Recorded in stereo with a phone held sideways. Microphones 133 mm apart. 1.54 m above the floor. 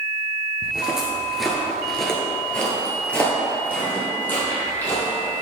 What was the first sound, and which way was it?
Footsteps, 5° right (ahead or behind).